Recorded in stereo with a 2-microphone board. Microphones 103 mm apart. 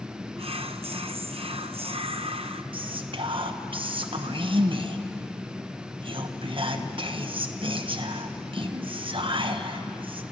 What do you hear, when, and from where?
0.4 s whispering: 60° right (ahead or behind), 1.0 m
2.7 s whispering: 50° right (ahead or behind), 1.4 m